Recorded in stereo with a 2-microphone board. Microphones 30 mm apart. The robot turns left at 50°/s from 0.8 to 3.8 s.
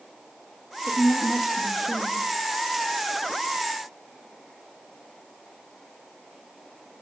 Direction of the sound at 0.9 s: 115° right.